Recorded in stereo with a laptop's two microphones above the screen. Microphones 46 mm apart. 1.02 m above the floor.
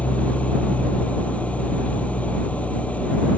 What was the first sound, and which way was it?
An engine running, 30° left (ahead or behind).